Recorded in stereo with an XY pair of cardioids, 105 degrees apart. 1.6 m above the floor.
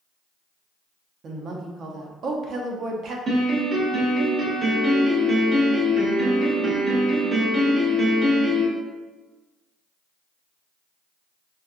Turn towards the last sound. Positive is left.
turn(degrees=-45)